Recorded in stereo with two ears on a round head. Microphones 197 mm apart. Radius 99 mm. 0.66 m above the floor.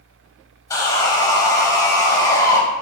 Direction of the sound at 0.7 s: 15° left (ahead or behind).